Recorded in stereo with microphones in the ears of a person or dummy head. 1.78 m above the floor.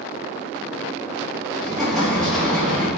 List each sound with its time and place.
1.6 s an explosion: centre (ahead or behind), 4.5 m